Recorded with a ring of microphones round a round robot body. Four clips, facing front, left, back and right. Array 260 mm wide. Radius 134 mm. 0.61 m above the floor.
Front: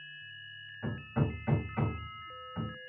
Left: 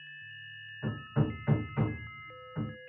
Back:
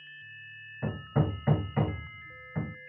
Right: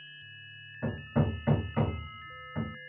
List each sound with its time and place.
0.8 s hammering: 145° right, 1.6 m